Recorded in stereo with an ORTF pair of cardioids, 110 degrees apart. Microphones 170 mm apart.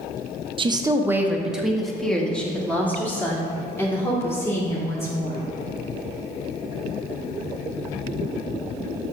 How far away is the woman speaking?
About 0.6 m.